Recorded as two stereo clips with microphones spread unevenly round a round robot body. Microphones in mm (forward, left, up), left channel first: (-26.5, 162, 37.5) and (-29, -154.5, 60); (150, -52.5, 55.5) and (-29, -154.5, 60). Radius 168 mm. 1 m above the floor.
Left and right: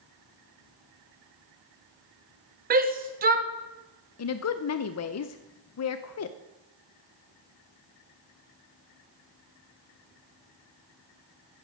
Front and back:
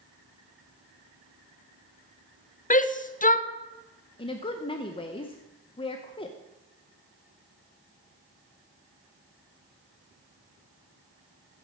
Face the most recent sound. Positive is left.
turn(degrees=90)